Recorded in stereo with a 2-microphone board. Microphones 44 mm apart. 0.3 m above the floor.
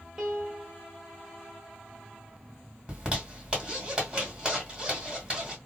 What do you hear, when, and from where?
0.2 s a piano: 15° right (ahead or behind), 1.1 m
2.9 s a zipper: 20° right (ahead or behind), 1.7 m